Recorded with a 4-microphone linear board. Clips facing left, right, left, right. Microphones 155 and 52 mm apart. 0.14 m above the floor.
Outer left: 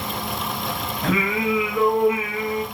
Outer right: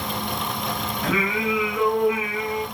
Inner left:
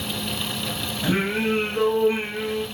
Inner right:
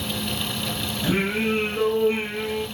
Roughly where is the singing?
Left.